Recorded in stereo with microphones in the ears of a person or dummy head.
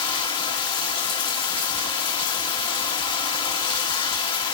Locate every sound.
0.0 s running water: 20° left (ahead or behind), 1.3 m